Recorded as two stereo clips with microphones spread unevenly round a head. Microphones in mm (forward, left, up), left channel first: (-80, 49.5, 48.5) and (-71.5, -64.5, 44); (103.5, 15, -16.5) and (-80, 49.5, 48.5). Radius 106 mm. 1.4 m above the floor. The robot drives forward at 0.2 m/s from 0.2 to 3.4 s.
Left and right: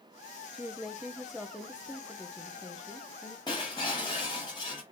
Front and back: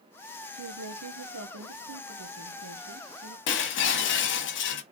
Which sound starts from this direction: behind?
A woman speaking, at 0.5 s.